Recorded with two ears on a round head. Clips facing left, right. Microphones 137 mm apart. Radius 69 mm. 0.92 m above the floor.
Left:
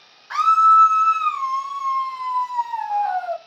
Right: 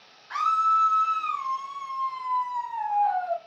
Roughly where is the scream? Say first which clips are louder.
Left 9 dB; left.